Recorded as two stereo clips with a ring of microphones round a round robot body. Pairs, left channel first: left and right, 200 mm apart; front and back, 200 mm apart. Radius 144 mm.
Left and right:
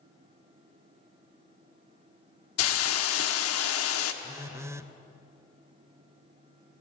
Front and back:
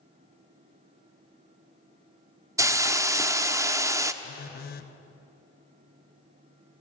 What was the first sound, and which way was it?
A hiss, 105° left.